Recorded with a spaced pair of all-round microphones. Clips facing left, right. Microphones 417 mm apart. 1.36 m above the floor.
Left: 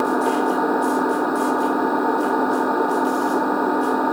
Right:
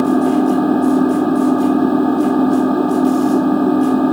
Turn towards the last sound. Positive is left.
turn(degrees=-50)  # may be behind; listen again after turning